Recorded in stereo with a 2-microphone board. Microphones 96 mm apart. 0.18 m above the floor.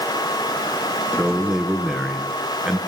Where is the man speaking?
5° right (ahead or behind), 3 m.